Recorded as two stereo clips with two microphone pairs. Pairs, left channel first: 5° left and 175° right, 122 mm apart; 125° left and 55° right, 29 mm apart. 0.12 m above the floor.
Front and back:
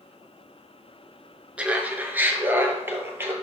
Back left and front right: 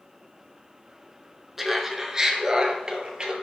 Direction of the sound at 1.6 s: 120° right.